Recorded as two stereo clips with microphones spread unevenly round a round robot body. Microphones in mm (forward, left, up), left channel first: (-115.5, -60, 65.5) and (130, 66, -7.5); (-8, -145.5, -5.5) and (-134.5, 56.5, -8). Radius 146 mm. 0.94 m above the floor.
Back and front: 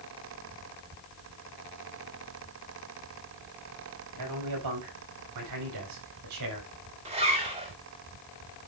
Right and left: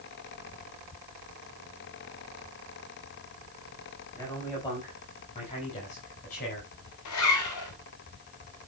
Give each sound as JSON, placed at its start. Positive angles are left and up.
{"t": 4.1, "sound": "a man speaking", "azimuth_deg": 25, "distance_m": 6.5}
{"t": 7.0, "sound": "a zipper", "azimuth_deg": -40, "distance_m": 4.0}